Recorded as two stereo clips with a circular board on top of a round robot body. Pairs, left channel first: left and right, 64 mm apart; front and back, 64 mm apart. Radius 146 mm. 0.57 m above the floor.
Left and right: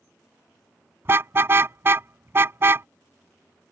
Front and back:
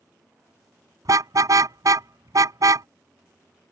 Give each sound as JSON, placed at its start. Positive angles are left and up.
{"t": 1.1, "sound": "a car horn", "azimuth_deg": -145}